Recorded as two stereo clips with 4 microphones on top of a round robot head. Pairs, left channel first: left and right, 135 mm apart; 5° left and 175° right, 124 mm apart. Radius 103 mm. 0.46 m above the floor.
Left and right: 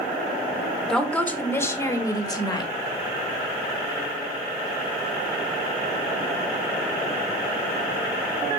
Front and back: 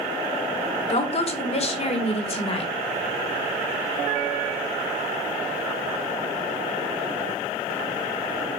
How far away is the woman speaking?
About 1.6 m.